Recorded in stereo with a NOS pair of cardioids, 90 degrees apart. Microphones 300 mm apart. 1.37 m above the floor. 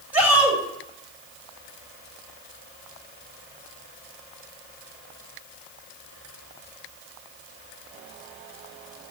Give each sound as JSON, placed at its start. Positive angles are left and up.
{"t": 0.1, "sound": "a shout", "azimuth_deg": -5, "distance_m": 6.5}